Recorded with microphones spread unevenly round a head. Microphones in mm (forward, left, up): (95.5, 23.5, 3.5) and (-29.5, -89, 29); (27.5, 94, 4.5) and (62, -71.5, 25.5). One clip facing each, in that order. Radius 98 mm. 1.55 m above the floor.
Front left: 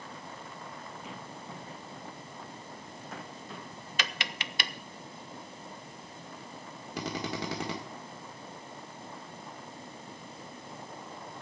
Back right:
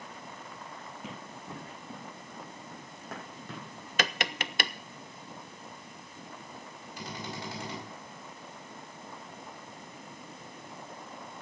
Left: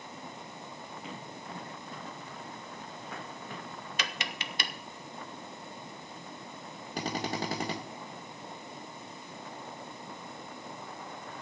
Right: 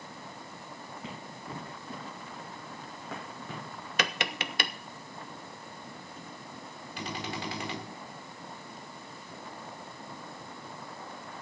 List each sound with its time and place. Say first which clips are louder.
1.0 s running footsteps: even, right 2 dB; 110° right, 6.5 m; by 3.9 s 115° right, 5 m
4.0 s tapping: back right 6 dB, right 8 dB; 110° right, 0.6 m
7.0 s a drill: front left 6 dB, left 4 dB; 60° left, 1.5 m